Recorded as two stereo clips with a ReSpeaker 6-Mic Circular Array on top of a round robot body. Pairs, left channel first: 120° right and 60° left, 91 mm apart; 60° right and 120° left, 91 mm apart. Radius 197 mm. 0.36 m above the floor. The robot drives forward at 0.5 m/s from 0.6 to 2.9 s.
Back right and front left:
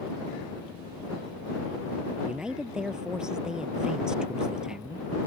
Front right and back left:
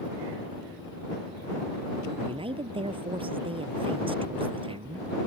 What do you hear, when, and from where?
2.2 s a man speaking: 140° left